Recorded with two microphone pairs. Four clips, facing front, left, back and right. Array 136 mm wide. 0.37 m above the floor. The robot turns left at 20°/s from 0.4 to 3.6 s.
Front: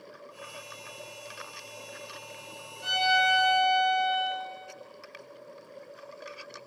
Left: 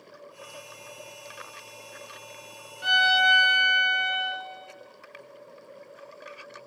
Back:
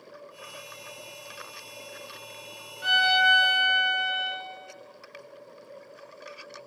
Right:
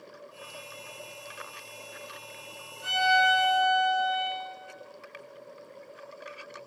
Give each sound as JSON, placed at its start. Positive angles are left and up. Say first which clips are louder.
{"t": 2.8, "sound": "a violin", "louder": "left 1 dB, back 3 dB", "azimuth_deg": 135, "distance_m": 1.2}